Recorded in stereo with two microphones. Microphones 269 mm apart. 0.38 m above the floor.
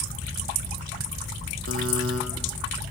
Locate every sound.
1.7 s a buzzer: 55° right (ahead or behind), 4 m